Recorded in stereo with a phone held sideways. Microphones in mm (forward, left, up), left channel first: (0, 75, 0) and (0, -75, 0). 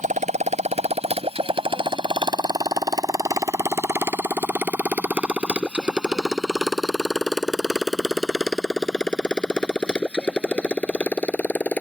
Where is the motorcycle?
55° right (ahead or behind); by 11.8 s 10° left (ahead or behind).